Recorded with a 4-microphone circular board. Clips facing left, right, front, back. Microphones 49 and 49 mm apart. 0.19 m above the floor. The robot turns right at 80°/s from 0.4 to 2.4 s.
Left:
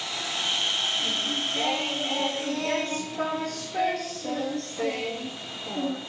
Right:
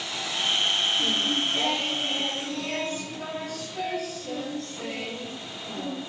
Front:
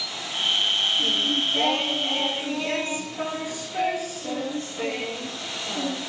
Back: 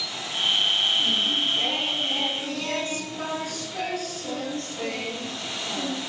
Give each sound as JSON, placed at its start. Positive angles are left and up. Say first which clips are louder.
{"t": 1.0, "sound": "singing", "louder": "right 3 dB, even", "azimuth_deg": -40, "distance_m": 1.9}